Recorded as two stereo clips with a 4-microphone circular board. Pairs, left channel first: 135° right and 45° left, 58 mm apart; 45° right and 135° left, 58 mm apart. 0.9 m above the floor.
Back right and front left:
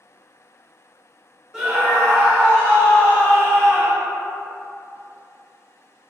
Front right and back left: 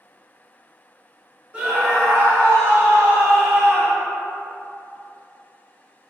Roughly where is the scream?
Left.